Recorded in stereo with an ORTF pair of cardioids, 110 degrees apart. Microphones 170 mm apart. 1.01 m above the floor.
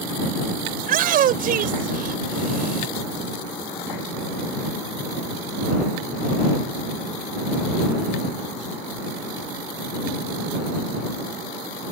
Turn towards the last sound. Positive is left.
turn(degrees=-60)